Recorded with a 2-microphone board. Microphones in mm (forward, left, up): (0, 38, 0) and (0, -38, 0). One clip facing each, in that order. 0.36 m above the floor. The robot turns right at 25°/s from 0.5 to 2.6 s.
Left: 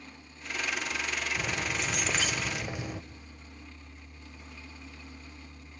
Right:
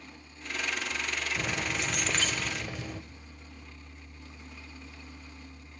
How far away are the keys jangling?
About 0.7 m.